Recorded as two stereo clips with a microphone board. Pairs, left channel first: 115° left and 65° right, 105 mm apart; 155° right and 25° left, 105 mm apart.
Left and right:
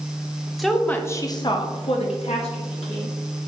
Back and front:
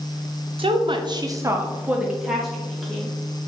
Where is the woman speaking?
20° left, 0.7 m; by 3.1 s 120° left, 1.5 m.